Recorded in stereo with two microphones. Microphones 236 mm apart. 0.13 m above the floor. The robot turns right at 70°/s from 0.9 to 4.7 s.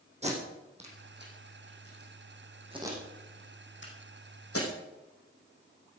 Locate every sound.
0.2 s tape being pulled: 25° right (ahead or behind), 5.5 m; by 4.7 s 65° left (ahead or behind), 5.5 m